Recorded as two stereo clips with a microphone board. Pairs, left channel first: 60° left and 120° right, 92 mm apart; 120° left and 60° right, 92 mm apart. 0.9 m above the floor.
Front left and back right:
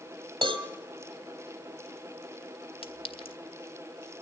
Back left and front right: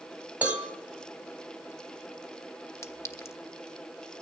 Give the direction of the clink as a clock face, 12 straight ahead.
10 o'clock.